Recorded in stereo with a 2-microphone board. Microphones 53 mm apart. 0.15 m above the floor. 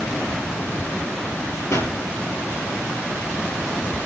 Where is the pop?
60° left (ahead or behind), 3.5 m.